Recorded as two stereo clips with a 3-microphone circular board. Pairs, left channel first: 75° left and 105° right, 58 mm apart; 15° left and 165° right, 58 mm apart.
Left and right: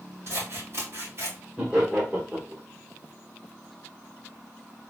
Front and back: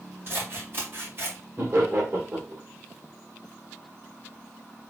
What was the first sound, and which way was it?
Scissors, 130° right.